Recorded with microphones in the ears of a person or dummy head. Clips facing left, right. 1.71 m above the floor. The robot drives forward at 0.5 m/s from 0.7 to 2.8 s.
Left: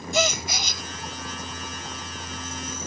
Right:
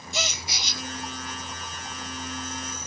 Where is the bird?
No bird in this recording.